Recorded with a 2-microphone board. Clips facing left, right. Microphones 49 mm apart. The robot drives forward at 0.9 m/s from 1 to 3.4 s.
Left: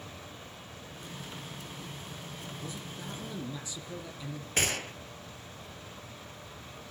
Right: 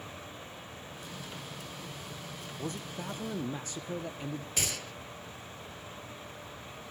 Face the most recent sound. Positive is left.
turn(degrees=50)  # may be behind; listen again after turning